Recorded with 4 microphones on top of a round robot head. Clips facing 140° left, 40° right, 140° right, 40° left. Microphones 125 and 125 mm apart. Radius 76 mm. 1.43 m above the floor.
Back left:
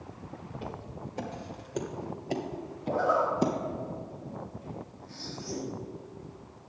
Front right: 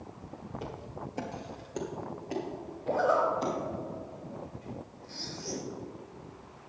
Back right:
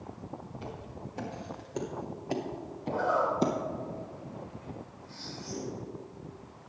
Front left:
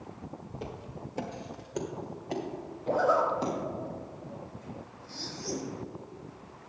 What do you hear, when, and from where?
0.5 s footsteps: straight ahead, 2 m; by 3.5 s straight behind, 3 m
2.9 s a zipper: 5° right, 3.5 m